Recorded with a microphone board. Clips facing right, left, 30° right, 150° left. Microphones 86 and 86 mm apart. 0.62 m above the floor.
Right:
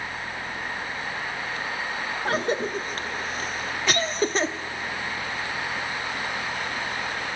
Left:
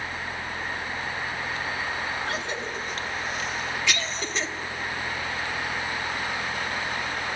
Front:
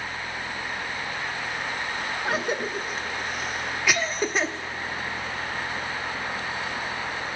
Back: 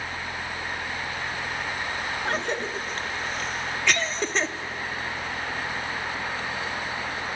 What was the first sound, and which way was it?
A cough, 110° right.